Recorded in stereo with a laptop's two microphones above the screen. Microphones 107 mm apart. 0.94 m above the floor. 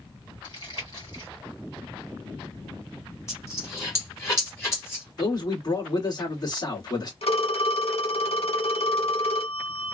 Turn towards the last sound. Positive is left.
turn(degrees=80)